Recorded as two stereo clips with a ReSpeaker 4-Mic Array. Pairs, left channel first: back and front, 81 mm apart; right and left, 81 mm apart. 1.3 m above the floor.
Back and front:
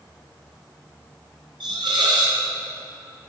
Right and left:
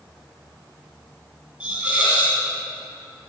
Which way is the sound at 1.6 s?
15° left.